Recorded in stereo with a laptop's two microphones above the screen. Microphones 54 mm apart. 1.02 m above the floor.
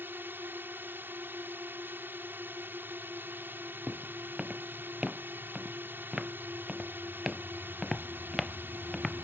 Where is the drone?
35° right (ahead or behind).